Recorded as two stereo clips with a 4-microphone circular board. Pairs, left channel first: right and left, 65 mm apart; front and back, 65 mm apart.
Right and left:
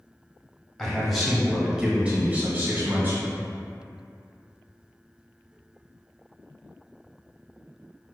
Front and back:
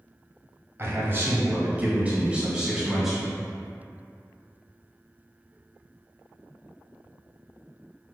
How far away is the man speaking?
About 1.4 m.